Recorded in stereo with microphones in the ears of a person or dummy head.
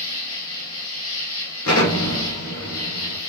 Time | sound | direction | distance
0.0 | an insect | 75° left (ahead or behind) | 1.5 m
1.6 | an explosion | 80° left | 1.8 m